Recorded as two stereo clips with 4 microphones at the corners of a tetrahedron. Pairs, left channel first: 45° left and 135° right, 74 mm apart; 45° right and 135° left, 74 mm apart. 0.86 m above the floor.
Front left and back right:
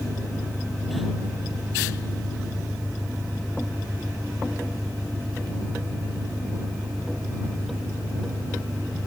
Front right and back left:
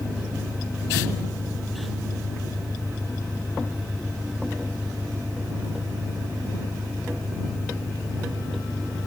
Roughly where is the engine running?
Right.